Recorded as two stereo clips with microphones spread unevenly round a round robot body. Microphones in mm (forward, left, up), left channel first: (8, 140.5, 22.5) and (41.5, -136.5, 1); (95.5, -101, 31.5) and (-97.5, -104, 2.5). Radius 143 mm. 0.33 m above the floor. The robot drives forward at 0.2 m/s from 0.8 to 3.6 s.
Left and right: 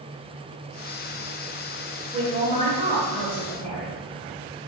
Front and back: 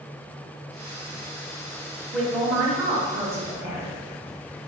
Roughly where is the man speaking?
Right.